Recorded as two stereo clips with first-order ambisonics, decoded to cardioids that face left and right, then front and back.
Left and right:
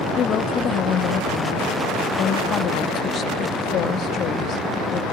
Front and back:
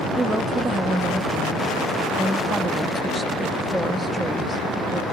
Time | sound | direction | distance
0.2 | a woman speaking | 100° left | 0.5 m